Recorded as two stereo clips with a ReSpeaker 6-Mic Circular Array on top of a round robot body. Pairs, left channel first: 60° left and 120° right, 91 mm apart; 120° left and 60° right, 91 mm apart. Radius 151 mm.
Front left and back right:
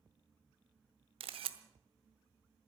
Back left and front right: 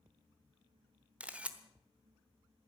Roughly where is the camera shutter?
Behind right.